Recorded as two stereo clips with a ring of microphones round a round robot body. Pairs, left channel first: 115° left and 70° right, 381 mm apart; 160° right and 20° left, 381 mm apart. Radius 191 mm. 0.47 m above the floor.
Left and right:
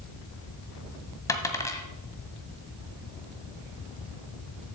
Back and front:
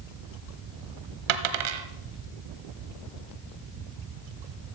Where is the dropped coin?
30° left, 1.2 m.